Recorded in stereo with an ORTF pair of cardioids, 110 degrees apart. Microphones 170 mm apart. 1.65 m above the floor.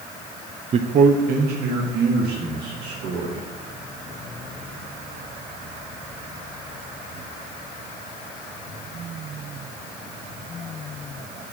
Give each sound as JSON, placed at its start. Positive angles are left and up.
{"t": 0.7, "sound": "a man speaking", "azimuth_deg": -35, "distance_m": 0.5}